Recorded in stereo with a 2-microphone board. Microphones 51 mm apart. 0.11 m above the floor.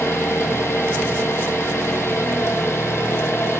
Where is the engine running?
60° left (ahead or behind), 0.8 m.